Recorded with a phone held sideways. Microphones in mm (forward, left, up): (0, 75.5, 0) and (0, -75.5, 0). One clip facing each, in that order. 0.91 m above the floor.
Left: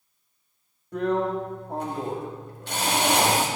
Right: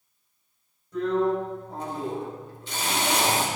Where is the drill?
65° left (ahead or behind), 1.9 m.